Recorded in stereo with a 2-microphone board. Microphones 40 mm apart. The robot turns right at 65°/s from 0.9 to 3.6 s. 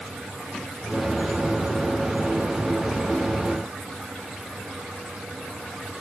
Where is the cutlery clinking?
No cutlery clinking in this recording.